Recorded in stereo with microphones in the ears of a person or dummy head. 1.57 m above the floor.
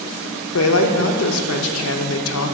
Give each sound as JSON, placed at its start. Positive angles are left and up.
{"t": 0.5, "sound": "a woman speaking", "side_deg": 80, "distance_m": 0.8}